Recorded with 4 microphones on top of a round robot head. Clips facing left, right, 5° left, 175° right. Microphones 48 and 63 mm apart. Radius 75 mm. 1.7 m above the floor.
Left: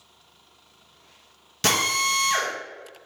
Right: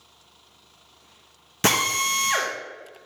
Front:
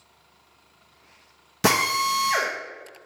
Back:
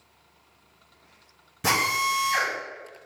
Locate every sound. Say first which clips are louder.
1.6 s a drill: right 1 dB, front 2 dB; 25° right, 0.7 m